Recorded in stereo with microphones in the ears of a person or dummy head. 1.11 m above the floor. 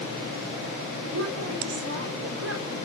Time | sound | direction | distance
1.1 | a woman speaking | 80° right | 4.5 m